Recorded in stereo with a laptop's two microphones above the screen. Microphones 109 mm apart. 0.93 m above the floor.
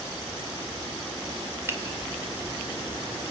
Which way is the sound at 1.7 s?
25° right (ahead or behind).